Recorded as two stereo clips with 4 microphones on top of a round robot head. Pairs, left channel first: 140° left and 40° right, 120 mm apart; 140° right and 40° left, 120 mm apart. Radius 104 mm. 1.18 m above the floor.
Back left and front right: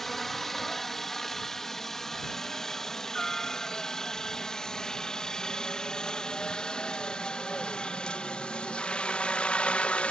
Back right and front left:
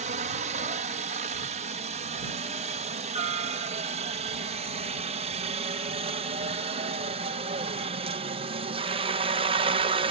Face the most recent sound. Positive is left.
turn(degrees=60)